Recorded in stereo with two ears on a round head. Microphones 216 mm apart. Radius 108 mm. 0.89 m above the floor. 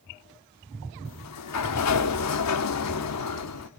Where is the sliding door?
75° left (ahead or behind), 1.0 m.